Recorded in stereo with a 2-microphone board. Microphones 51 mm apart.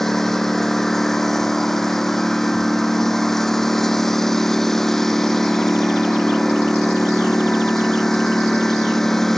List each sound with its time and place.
0.0 s a lawn mower: 5° left (ahead or behind)